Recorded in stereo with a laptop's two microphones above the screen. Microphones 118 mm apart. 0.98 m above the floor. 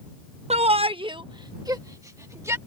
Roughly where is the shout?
Right.